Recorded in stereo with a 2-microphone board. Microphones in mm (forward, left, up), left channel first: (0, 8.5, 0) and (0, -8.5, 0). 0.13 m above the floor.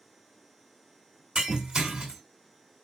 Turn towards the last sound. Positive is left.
turn(degrees=-60)  # may be behind; listen again after turning